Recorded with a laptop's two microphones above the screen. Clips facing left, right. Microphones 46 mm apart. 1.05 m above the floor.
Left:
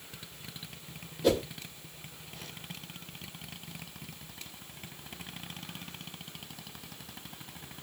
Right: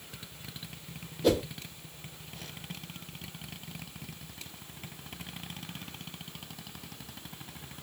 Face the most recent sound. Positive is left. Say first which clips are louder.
# right 1 dB
turn(degrees=0)  # may be behind; listen again after turning